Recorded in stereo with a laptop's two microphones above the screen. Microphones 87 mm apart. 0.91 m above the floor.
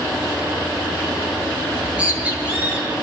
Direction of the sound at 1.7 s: 15° right (ahead or behind).